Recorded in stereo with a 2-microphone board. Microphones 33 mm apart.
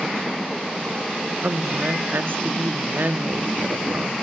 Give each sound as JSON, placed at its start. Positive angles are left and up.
{"t": 1.4, "sound": "a woman speaking", "side_deg": -80, "distance_m": 1.5}